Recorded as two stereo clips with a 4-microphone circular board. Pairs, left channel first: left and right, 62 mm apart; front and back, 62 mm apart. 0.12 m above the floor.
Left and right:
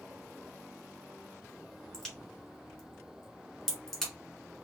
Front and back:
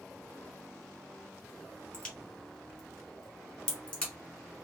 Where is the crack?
25° left, 1.6 m.